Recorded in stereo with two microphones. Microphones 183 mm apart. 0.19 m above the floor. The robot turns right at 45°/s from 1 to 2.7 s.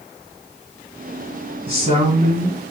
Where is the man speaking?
110° right, 1.5 m; by 2.7 s 60° right, 1.5 m.